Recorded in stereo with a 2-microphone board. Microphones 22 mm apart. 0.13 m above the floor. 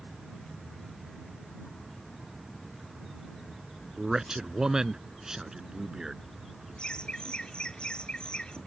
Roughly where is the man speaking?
Right.